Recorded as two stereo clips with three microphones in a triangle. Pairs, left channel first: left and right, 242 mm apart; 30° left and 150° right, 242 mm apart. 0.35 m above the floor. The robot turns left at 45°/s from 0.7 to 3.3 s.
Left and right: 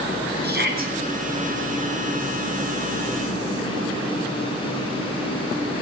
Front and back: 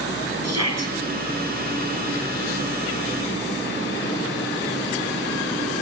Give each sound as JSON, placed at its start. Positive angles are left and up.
{"t": 0.4, "sound": "a shout", "azimuth_deg": -140, "distance_m": 5.5}